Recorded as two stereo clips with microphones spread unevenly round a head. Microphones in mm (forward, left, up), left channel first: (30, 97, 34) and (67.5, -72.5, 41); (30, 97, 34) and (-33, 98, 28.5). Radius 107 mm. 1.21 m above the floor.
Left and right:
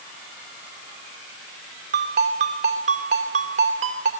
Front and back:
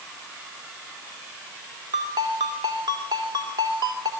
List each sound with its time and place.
1.9 s a ringtone: 135° right, 2.5 m